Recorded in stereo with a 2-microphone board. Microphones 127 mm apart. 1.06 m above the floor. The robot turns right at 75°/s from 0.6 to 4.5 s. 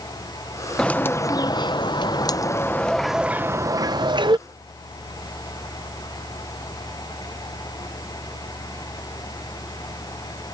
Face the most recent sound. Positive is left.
turn(degrees=-70)